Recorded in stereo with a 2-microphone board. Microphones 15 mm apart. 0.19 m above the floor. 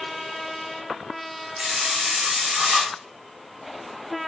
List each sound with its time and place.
1.6 s a hiss: 55° right (ahead or behind), 8 m